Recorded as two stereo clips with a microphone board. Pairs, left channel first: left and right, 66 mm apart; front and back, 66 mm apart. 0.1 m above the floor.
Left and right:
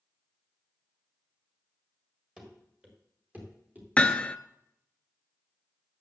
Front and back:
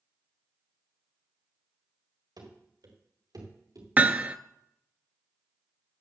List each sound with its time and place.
2.4 s running footsteps: 170° right, 4.5 m; by 3.9 s 155° right, 4.5 m
4.0 s hammering: 140° left, 0.5 m